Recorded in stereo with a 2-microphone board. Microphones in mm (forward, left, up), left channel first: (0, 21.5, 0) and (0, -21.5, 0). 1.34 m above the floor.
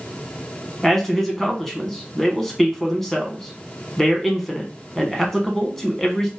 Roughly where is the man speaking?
Centre.